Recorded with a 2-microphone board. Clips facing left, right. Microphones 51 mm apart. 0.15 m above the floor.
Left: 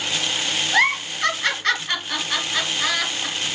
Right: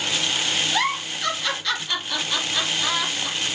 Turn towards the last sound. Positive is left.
turn(degrees=50)  # may be behind; listen again after turning